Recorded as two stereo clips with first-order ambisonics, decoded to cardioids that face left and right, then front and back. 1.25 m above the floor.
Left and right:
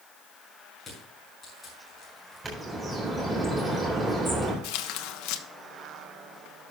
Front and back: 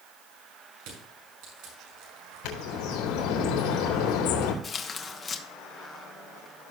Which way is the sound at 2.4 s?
10° right.